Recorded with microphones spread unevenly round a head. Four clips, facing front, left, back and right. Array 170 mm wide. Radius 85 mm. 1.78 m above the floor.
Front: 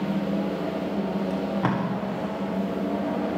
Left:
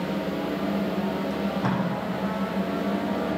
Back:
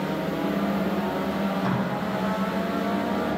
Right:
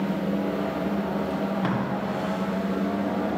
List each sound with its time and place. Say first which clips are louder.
1.3 s tape being pulled: even, even; 5° right, 1.4 m